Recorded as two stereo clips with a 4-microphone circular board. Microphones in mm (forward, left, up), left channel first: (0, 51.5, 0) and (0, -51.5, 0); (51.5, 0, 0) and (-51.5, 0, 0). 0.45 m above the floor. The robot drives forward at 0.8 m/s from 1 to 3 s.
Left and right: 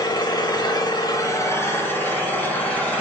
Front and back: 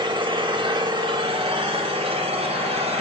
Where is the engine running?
140° left, 0.8 m; by 3.0 s 165° left, 2.5 m.